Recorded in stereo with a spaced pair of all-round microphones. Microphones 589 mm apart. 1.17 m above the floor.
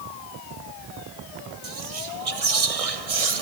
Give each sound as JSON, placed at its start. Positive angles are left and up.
{"t": 1.6, "sound": "whispering", "side_deg": -70, "distance_m": 1.0}